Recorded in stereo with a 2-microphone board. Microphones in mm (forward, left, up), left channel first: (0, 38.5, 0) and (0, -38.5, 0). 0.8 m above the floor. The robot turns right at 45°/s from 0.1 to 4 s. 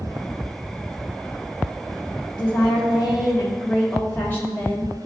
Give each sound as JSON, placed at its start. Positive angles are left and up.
{"t": 2.4, "sound": "a woman speaking", "azimuth_deg": 80, "distance_m": 1.3}